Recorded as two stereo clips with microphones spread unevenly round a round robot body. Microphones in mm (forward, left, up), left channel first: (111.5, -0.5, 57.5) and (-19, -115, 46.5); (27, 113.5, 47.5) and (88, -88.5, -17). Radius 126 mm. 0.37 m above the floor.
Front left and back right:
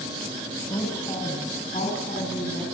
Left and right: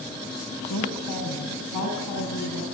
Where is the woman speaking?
115° left, 3.5 m; by 2.6 s 100° left, 5 m.